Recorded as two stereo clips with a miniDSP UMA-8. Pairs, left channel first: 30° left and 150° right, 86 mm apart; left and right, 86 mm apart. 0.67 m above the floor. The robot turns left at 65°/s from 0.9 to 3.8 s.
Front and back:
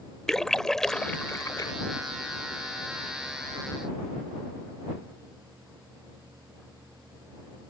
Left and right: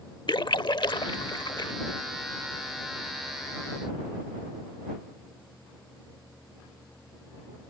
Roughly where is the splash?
Left.